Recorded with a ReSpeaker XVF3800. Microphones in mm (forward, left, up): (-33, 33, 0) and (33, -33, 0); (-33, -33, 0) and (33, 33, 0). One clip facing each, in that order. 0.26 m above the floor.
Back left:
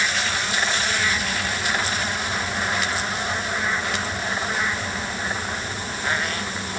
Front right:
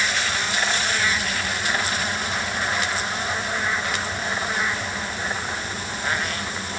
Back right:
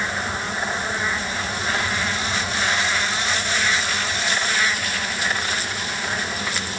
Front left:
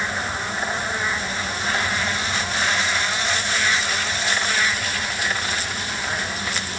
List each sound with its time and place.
Only background noise.